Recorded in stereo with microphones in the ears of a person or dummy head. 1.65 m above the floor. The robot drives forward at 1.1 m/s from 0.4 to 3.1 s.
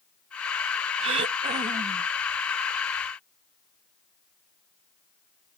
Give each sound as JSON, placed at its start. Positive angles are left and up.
{"t": 1.0, "sound": "throat clearing", "side_deg": -35}